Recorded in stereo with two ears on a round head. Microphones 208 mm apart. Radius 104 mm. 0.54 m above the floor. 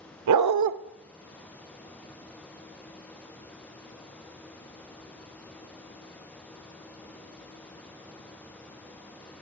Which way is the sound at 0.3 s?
80° right.